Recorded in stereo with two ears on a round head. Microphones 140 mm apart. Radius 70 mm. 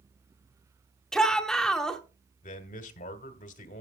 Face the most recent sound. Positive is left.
turn(degrees=50)  # may be behind; listen again after turning